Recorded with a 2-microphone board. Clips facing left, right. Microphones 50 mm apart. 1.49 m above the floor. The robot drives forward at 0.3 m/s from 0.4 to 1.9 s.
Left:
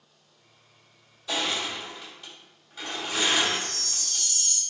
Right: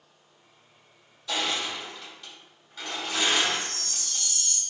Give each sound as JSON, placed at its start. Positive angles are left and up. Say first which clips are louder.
{"t": 1.3, "sound": "crushing", "louder": "even", "side_deg": 5, "distance_m": 1.9}
{"t": 3.4, "sound": "a chime", "louder": "even", "side_deg": -45, "distance_m": 1.7}